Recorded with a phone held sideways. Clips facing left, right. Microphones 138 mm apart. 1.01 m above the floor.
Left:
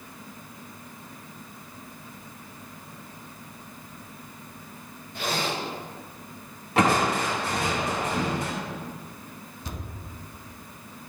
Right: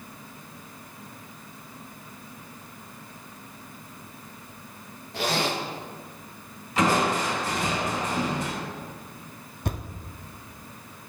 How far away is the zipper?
About 1.4 m.